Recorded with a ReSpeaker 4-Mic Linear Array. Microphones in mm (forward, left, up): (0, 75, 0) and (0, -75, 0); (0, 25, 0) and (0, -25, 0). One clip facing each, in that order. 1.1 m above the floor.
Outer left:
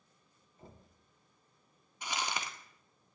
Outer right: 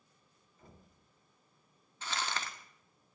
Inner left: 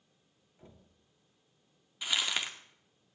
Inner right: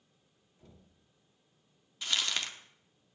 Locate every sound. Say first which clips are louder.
0.6 s knocking: outer left 3 dB, inner left 2 dB; 30° left (ahead or behind), 2 m
2.0 s crumpling: outer left 1 dB, inner left 1 dB; 15° left (ahead or behind), 1.3 m